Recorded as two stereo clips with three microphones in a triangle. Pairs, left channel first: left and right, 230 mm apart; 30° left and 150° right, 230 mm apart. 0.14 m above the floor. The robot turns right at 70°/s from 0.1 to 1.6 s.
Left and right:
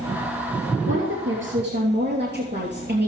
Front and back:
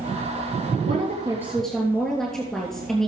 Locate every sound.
0.9 s a woman speaking: 110° right, 3 m; by 3.1 s 55° right, 3 m